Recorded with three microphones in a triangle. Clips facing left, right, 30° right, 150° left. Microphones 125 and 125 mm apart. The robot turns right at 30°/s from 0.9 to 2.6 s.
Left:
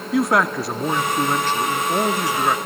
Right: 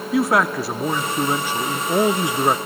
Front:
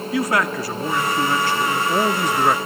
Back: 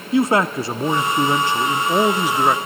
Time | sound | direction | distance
0.1 | a man speaking | straight behind | 0.6 m